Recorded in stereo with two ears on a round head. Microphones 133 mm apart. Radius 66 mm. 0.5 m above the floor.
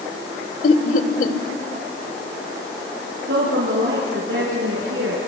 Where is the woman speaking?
80° right, 5.5 m.